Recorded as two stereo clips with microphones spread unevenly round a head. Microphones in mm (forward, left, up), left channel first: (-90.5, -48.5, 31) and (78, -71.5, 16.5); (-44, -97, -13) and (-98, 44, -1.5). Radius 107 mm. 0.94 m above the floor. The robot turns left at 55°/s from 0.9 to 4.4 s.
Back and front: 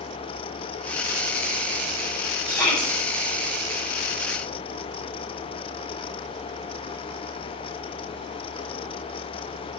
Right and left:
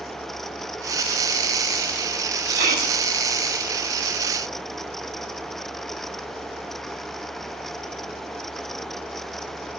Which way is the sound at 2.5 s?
90° left.